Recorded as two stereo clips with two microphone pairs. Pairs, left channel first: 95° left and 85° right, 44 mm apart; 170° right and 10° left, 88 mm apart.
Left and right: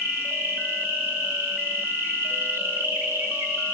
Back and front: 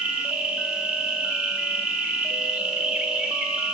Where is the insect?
65° right, 1.9 m.